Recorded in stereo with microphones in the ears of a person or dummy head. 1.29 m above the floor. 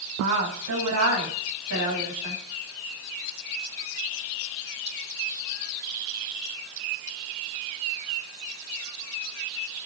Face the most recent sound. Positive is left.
turn(degrees=-90)